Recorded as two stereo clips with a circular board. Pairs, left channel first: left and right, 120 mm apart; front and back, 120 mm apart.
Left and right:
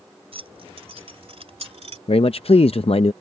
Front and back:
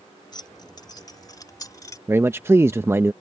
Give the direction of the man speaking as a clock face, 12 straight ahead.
8 o'clock.